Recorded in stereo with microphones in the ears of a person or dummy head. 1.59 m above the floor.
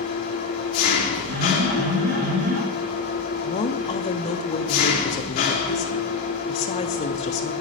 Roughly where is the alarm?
Right.